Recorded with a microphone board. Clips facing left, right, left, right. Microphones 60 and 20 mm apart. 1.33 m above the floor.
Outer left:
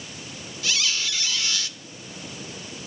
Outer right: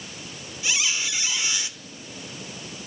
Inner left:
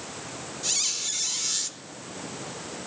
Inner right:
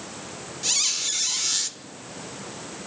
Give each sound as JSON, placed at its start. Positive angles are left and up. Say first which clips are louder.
{"t": 0.6, "sound": "a squeak", "louder": "even, inner right 4 dB", "side_deg": -15, "distance_m": 1.4}